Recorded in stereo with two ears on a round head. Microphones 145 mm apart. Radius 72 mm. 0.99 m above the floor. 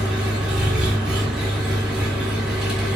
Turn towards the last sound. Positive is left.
turn(degrees=-5)  # may be behind; listen again after turning